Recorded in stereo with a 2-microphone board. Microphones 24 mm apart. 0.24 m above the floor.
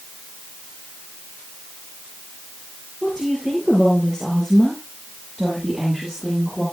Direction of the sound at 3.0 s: 20° left (ahead or behind).